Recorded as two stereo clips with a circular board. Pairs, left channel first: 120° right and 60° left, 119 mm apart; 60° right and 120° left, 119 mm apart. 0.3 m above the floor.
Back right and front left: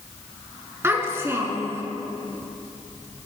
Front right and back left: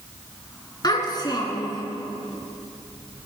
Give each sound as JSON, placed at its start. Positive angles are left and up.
{"t": 0.8, "sound": "a child speaking", "azimuth_deg": -10, "distance_m": 3.0}